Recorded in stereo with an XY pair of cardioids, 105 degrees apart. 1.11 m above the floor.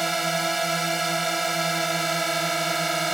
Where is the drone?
15° right.